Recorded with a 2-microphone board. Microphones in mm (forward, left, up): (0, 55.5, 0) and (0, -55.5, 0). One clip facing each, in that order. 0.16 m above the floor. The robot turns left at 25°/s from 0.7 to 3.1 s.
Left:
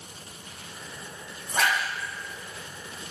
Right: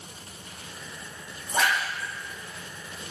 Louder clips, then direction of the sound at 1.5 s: Even; 15° right (ahead or behind).